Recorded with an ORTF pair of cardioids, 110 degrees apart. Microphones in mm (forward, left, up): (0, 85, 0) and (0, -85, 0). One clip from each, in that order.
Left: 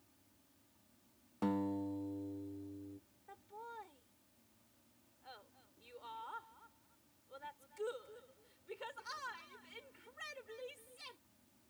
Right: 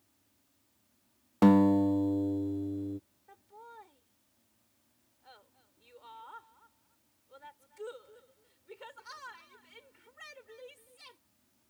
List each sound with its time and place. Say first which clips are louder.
0.0 s an insect: left 2 dB; 20° left
1.4 s a guitar: right 15 dB; 60° right
3.3 s laughter: left 1 dB; 5° left